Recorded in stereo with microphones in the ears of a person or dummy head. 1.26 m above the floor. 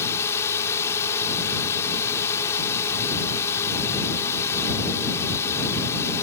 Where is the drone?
15° left (ahead or behind).